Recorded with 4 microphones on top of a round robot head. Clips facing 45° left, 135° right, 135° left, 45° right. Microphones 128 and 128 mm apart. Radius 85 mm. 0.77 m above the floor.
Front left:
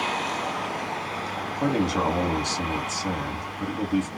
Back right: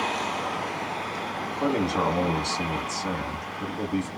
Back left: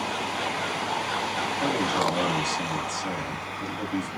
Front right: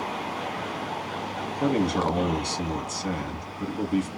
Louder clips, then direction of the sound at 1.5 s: Front left 1 dB, front right 4 dB; 20° right.